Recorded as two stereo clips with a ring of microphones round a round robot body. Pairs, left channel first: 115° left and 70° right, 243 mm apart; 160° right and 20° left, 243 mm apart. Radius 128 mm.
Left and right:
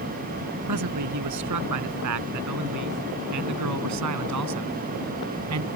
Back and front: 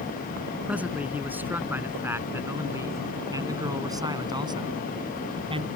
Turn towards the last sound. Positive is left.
turn(degrees=-45)